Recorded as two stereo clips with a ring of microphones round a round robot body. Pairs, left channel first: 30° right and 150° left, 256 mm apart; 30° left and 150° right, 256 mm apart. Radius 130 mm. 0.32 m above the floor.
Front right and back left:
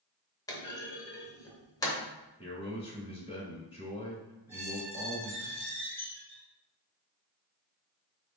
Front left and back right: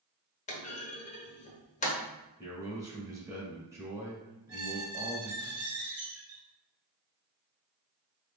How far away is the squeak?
About 1.7 m.